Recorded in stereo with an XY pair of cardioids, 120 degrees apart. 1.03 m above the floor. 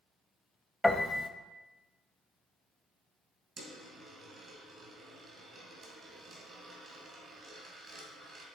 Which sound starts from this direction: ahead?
A piano, at 0.8 s.